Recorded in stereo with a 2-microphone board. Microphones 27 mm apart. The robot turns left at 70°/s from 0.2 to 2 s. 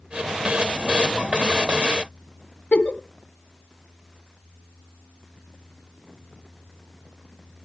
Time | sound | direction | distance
2.7 | a giggle | 50° left (ahead or behind) | 1.6 m